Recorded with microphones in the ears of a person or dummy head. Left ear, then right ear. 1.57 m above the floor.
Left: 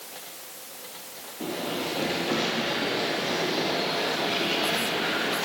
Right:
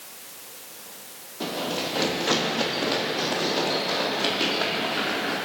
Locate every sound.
1.4 s running footsteps: 50° right (ahead or behind), 3 m; by 5.3 s 60° right (ahead or behind), 5 m